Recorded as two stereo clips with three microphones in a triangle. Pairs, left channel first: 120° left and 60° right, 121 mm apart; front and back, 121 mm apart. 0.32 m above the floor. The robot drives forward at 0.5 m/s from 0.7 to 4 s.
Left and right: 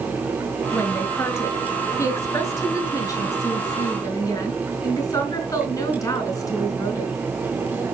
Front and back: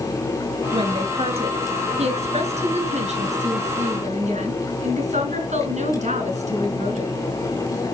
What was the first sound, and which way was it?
A woman speaking, straight behind.